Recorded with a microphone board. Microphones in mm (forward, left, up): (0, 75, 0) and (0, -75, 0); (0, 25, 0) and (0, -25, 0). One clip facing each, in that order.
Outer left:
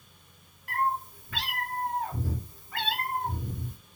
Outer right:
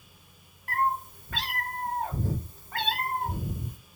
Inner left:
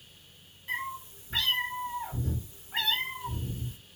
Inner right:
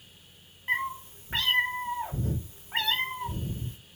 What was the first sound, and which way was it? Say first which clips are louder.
A cat meowing: outer right 1 dB, inner right 5 dB; 45° right (ahead or behind).